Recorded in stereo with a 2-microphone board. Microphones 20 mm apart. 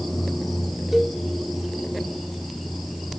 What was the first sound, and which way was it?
A cowbell, 10° right (ahead or behind).